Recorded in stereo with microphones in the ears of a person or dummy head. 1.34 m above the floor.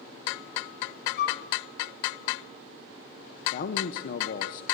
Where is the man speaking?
55° left (ahead or behind), 0.7 m.